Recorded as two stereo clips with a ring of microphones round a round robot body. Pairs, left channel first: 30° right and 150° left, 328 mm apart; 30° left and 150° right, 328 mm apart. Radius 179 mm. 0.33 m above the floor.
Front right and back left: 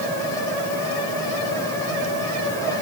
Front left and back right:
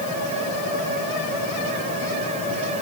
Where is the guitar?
No guitar in this recording.